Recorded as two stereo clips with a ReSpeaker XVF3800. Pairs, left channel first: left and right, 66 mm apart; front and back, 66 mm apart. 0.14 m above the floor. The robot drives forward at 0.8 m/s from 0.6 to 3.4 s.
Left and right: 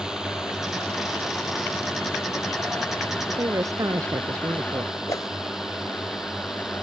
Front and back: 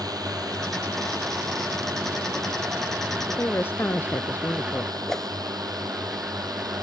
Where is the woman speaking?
55° right.